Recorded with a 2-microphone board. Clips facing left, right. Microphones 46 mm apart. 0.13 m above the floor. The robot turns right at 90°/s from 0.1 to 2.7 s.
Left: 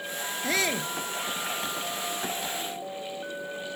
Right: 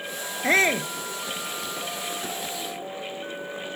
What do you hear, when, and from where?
0.4 s a shout: 70° right; by 0.9 s 30° right